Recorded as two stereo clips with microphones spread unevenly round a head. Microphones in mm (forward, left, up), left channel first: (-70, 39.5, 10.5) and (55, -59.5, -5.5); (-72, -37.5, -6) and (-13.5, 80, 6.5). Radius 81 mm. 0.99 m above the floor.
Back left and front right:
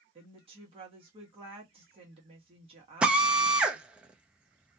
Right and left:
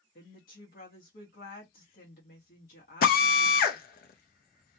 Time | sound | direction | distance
0.1 | a woman speaking | 90° right | 1.3 m
3.0 | a drill | 120° right | 0.6 m